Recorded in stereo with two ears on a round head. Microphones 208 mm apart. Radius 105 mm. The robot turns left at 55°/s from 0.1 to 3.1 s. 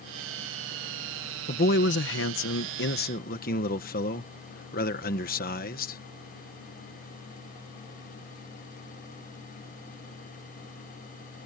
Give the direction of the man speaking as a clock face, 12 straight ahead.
7 o'clock.